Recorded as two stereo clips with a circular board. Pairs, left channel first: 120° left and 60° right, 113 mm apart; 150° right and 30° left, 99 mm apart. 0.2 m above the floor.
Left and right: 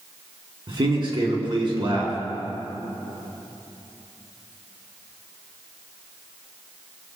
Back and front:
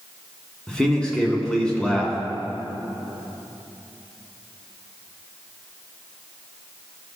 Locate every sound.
0.7 s a man speaking: 70° right, 2 m